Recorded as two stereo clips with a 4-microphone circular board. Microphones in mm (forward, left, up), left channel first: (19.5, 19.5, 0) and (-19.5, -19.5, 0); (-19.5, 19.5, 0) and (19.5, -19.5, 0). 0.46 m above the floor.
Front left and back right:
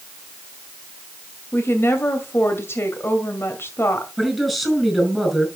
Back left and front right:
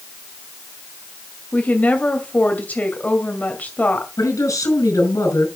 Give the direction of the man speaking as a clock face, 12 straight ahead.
8 o'clock.